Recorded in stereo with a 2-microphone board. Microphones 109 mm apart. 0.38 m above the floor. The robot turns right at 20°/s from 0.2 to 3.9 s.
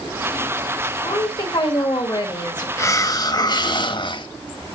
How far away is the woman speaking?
About 1.9 m.